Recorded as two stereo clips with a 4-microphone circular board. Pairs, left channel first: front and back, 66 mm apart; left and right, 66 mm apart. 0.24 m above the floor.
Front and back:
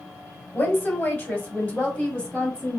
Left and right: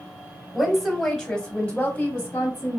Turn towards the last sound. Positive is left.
turn(degrees=70)